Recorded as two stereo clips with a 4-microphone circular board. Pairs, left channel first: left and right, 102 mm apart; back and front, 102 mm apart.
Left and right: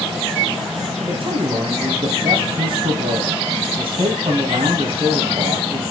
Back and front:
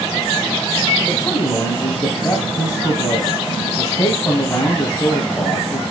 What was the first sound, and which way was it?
A man speaking, 115° right.